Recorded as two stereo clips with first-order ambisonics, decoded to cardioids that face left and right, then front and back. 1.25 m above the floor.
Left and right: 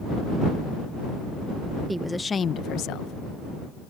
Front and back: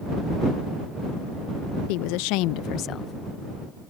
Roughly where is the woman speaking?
Ahead.